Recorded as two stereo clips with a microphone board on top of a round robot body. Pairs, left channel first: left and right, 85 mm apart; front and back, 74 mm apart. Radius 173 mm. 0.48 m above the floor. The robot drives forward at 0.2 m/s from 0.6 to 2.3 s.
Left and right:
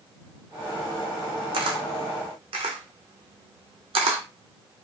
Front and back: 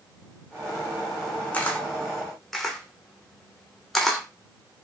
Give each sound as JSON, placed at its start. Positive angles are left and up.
{"t": 1.5, "sound": "a camera shutter", "azimuth_deg": -75, "distance_m": 0.6}